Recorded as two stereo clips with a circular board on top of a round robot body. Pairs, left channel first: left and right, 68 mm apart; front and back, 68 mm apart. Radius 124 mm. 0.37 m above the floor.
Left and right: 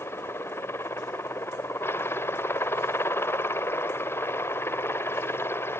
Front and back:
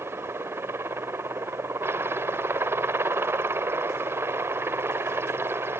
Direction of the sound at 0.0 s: 135° left.